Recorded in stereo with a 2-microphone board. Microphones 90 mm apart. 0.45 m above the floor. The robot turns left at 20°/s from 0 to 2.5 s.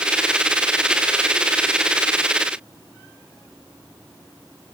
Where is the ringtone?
No ringtone in this recording.